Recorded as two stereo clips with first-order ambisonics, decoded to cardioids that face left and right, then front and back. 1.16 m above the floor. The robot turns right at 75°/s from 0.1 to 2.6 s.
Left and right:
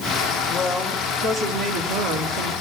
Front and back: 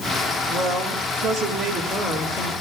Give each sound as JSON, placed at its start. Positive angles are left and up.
{"t": 0.5, "sound": "a woman speaking", "azimuth_deg": 145, "distance_m": 2.0}